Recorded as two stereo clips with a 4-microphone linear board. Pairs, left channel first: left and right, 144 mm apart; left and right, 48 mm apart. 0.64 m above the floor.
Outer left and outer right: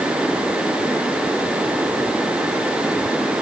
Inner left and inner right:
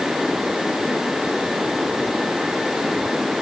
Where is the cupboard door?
No cupboard door in this recording.